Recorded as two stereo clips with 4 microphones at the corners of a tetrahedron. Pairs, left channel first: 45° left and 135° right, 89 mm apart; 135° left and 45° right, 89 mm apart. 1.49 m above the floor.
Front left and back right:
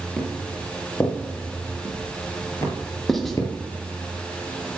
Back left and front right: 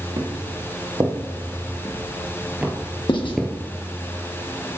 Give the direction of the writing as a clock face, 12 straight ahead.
8 o'clock.